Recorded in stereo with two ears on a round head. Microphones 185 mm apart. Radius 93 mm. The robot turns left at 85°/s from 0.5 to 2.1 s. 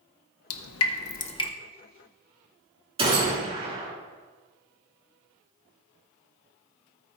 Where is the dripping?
80° left, 0.8 m; by 1.5 s 15° left (ahead or behind), 0.8 m.